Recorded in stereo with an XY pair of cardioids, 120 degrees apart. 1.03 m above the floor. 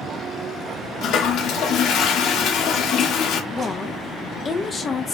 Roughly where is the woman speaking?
Ahead left.